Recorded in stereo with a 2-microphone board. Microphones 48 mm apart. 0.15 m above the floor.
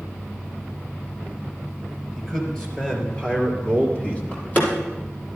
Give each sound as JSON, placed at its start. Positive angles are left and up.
{"t": 2.2, "sound": "a man speaking", "side_deg": 15, "distance_m": 3.5}
{"t": 4.3, "sound": "a door slam", "side_deg": 30, "distance_m": 3.0}